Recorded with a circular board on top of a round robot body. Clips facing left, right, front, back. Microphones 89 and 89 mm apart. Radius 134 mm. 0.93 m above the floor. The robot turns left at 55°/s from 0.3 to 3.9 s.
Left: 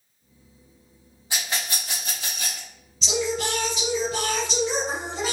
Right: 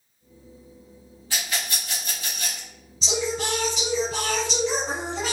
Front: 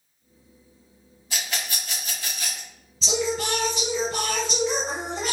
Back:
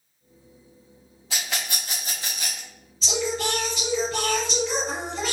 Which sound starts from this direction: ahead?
Singing, at 3.0 s.